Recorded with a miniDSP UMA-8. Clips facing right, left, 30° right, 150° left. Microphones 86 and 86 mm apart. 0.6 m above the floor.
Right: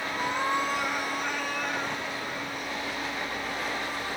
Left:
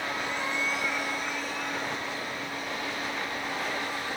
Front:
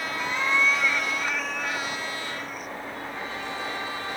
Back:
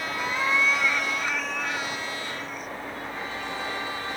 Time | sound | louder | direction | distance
0.2 | a cat meowing | right 4 dB, even | 130° right | 1.0 m